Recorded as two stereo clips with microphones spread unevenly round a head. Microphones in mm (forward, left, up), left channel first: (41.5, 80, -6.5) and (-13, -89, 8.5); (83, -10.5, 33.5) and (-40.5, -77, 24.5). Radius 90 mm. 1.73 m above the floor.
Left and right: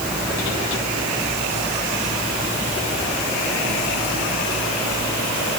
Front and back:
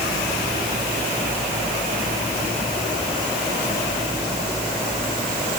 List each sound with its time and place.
Only background noise.